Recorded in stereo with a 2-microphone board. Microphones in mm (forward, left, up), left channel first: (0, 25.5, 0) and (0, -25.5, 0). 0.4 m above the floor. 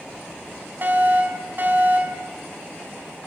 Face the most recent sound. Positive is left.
turn(degrees=-45)  # may be behind; listen again after turning